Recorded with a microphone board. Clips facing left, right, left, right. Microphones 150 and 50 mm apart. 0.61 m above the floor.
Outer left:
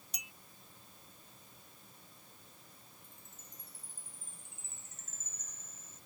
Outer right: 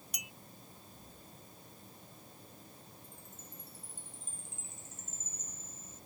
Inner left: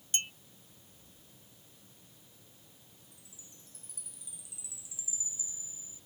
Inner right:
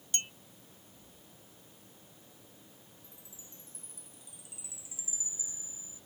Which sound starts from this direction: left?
A clink, at 0.1 s.